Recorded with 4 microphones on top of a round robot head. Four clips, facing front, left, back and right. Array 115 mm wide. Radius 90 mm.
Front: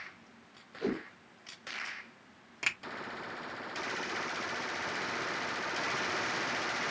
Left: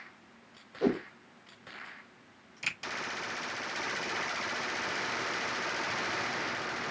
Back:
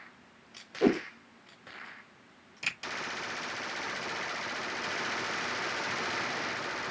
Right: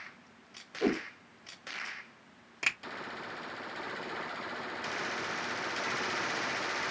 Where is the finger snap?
50° right, 2.5 m.